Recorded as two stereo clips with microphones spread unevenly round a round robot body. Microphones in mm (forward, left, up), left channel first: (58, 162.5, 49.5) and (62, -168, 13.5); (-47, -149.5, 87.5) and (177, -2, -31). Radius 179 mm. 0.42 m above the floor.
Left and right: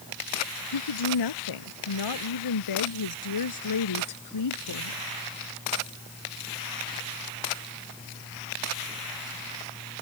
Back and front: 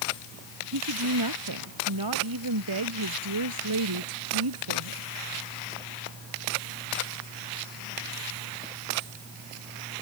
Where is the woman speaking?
75° left; by 5.0 s 55° left.